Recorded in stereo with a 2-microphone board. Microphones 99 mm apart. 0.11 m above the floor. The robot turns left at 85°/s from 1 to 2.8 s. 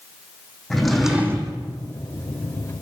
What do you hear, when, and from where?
0.7 s a drawer: straight ahead, 1.3 m; by 1.6 s 50° right, 1.3 m